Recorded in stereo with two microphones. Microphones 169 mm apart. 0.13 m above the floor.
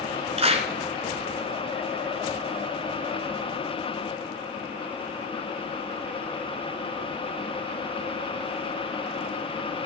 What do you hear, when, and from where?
0.4 s a clap: 35° right (ahead or behind), 1.3 m